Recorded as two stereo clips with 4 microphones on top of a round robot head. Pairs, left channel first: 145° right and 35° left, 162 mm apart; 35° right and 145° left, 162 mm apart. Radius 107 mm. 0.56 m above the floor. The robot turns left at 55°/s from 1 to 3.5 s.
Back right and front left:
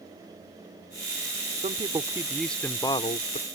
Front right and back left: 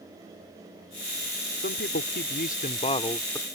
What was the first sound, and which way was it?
A man speaking, 15° right.